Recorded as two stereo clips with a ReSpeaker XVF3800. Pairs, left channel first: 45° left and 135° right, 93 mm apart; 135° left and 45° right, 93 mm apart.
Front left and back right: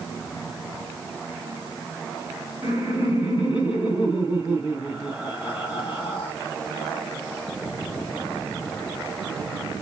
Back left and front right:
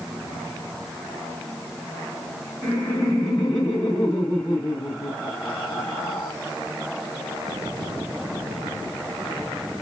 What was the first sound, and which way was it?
Laughter, 85° left.